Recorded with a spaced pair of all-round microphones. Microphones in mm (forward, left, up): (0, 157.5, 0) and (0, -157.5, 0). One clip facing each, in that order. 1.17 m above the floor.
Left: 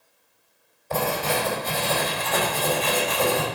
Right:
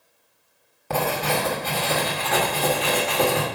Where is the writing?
80° right, 2 m.